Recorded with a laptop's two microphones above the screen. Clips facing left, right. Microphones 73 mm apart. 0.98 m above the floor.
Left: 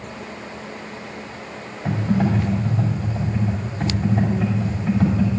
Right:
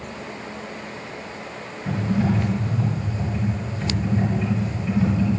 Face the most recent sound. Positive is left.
turn(degrees=80)